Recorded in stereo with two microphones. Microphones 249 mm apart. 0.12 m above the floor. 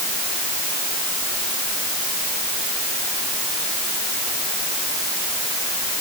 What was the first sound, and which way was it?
Only background noise.